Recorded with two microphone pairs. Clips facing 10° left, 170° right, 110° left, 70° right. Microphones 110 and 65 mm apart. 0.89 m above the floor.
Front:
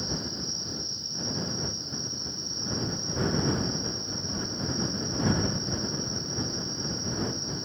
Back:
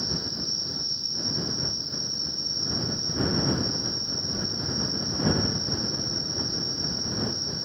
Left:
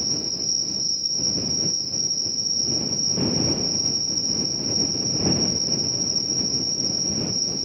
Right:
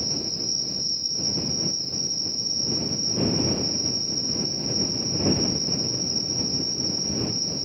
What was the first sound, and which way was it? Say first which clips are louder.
An insect: even, even; 35° right.